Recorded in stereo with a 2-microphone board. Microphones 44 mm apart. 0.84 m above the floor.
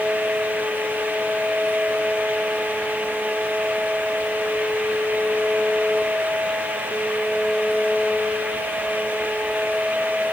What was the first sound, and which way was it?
Only background noise.